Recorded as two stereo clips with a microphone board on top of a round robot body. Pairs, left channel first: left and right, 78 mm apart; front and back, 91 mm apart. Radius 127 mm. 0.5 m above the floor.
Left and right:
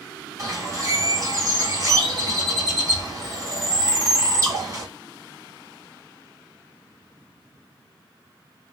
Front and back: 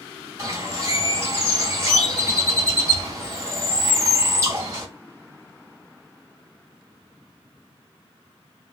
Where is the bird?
125° right, 1.9 m.